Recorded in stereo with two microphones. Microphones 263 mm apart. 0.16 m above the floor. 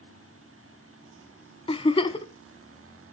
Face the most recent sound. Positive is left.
turn(degrees=20)  # may be behind; listen again after turning